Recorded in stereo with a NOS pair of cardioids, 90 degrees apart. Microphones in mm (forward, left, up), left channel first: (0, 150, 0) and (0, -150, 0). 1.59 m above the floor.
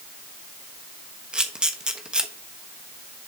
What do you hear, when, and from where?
1.3 s a camera shutter: 5° right, 1.2 m